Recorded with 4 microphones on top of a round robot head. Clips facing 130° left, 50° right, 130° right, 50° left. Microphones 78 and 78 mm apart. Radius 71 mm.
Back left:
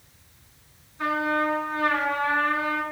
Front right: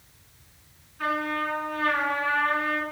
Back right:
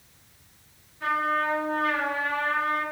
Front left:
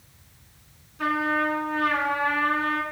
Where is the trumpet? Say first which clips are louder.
Back left 3 dB, front left 1 dB; 65° left, 3.5 m.